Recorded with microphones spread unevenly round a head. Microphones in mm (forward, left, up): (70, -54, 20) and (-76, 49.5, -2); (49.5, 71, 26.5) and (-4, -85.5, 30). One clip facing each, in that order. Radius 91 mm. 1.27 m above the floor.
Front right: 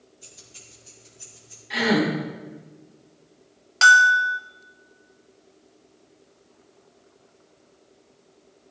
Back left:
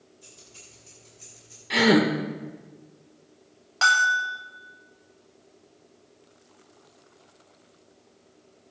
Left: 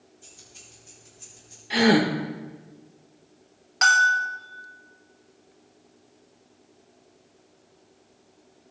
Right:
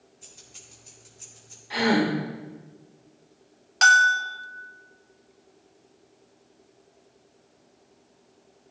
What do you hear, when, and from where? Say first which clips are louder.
0.2 s keys jangling: even, left 1 dB; 100° right, 3 m; by 1.6 s 120° right, 4 m
1.7 s a gasp: back left 2 dB, left 3 dB; 135° left, 1.2 m
3.8 s a bell: front right 6 dB, right 1 dB; 65° right, 1.2 m